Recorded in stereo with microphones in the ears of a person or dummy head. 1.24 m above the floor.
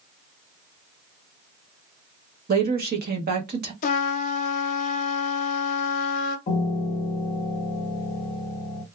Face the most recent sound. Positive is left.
turn(degrees=30)  # may be behind; listen again after turning